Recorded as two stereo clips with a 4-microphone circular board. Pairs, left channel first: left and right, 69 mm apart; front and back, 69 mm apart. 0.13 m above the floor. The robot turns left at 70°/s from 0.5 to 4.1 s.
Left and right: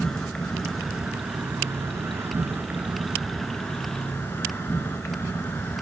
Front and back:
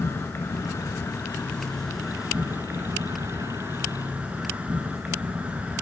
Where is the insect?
20° left, 1.1 m; by 5.8 s 125° left, 1.1 m.